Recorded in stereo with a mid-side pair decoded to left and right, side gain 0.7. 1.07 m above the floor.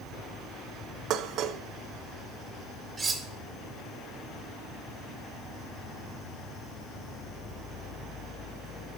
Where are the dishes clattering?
50° right, 0.8 m.